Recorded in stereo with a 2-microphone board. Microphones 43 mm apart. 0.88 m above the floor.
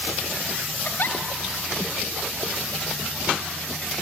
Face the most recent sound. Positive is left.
turn(degrees=50)  # may be behind; listen again after turning